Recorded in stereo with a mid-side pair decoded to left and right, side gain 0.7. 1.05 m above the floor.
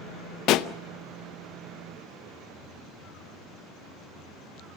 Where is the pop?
55° left, 0.7 m.